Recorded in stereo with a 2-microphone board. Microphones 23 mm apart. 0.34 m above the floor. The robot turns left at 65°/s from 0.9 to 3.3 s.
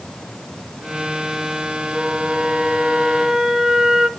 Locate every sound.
1.9 s a flute: 40° right, 1.2 m; by 4.1 s 130° right, 1.2 m